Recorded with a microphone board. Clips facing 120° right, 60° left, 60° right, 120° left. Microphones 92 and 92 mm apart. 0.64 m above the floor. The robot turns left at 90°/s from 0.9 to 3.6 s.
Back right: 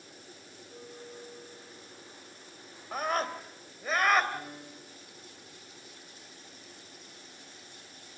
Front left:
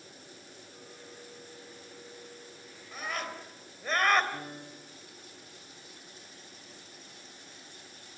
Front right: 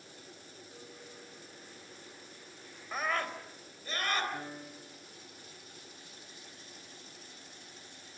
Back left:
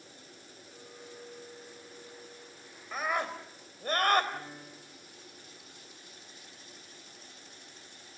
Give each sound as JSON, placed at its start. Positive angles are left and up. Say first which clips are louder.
{"t": 0.7, "sound": "a clink", "louder": "back right 6 dB, back left 4 dB", "azimuth_deg": -130, "distance_m": 9.5}
{"t": 2.9, "sound": "a scream", "louder": "back right 7 dB, back left 2 dB", "azimuth_deg": -145, "distance_m": 3.5}
{"t": 4.3, "sound": "a piano", "louder": "even, front right 1 dB", "azimuth_deg": 20, "distance_m": 7.0}